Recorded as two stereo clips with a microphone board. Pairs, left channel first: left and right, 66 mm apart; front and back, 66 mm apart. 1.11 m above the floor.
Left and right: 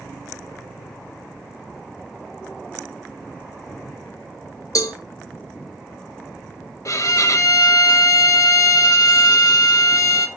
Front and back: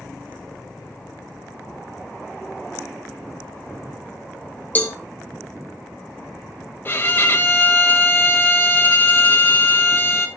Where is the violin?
55° left, 1.0 m.